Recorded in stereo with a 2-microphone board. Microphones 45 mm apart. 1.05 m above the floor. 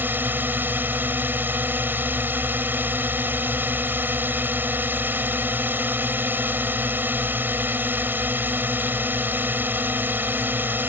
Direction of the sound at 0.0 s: 50° right (ahead or behind).